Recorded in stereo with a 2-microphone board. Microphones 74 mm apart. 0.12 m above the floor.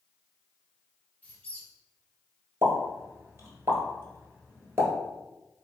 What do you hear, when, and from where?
1.2 s a squeak: 20° left (ahead or behind), 1.0 m
2.6 s a pop: 35° right (ahead or behind), 1.2 m